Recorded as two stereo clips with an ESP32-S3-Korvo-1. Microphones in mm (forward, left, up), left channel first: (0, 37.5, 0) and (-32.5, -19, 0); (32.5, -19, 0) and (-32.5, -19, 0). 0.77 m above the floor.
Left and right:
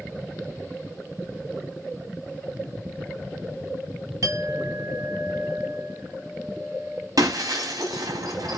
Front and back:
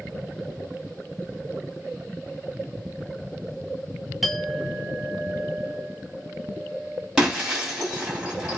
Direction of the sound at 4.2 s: 95° right.